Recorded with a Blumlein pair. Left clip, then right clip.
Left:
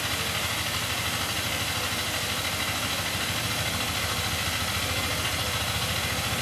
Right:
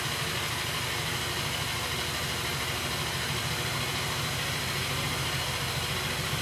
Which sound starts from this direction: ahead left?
A machine running, at 0.0 s.